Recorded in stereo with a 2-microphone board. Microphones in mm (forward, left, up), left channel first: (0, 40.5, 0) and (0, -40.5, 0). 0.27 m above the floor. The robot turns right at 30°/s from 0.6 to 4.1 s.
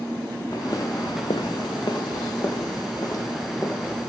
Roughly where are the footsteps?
Left.